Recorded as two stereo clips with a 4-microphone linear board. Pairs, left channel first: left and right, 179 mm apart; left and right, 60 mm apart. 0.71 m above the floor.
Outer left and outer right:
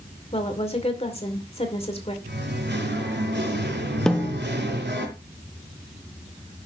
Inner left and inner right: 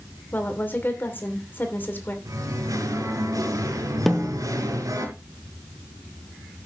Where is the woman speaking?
35° left (ahead or behind), 2.5 m.